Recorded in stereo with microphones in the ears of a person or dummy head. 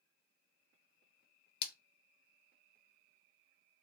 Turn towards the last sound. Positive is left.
turn(degrees=60)  # may be behind; listen again after turning